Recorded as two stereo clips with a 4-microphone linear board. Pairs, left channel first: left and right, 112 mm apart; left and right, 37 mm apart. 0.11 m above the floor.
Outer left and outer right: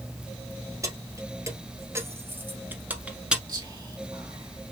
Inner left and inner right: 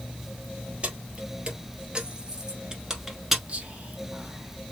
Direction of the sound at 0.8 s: 30° right (ahead or behind).